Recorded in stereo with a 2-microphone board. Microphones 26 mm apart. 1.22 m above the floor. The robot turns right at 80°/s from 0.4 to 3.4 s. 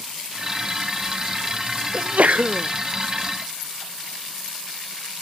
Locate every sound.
1.9 s a sneeze: 135° right, 0.6 m; by 2.7 s 75° right, 0.6 m